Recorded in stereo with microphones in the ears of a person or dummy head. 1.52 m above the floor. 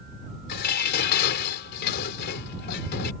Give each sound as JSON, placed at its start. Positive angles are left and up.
{"t": 0.5, "sound": "dishes clattering", "side_deg": 60}